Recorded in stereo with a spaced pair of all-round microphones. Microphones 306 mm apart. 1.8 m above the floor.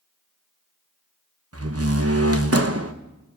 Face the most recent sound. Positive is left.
turn(degrees=-50)  # may be behind; listen again after turning